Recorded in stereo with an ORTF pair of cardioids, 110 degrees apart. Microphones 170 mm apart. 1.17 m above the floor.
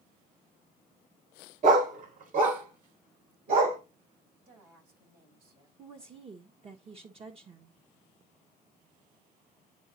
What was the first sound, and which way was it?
A dog barking, 50° right.